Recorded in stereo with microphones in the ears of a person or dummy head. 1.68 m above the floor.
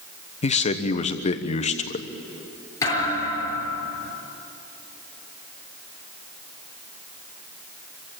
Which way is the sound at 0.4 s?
40° left (ahead or behind).